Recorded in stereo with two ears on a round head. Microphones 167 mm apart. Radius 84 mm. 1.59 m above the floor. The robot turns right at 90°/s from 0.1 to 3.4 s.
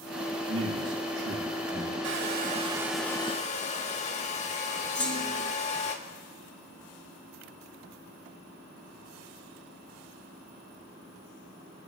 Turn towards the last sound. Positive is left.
turn(degrees=5)  # may be behind; listen again after turning